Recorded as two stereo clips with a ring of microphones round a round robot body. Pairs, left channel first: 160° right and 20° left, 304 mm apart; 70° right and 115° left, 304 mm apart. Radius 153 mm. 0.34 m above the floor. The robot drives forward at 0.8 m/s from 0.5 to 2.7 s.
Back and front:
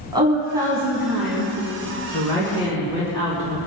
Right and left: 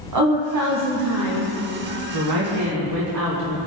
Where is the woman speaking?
100° left, 2.5 m; by 3.7 s 130° left, 3.5 m.